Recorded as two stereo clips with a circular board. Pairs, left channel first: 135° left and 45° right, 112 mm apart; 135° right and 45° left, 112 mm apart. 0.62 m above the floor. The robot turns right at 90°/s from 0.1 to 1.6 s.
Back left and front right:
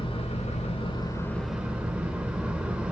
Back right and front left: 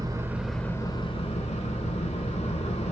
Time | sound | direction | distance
0.0 | an engine running | 100° left | 1.5 m